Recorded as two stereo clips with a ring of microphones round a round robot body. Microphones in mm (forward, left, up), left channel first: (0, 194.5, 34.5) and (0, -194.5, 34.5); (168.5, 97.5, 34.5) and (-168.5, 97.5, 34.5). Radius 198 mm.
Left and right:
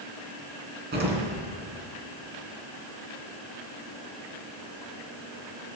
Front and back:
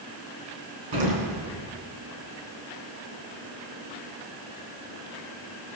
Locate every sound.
0.9 s an explosion: 155° right, 3.5 m